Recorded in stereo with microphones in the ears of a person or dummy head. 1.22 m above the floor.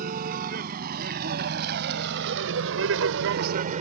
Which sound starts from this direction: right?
A vehicle, at 0.0 s.